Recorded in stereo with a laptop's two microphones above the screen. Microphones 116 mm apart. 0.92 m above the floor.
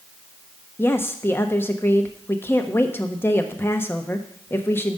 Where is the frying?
No frying in this recording.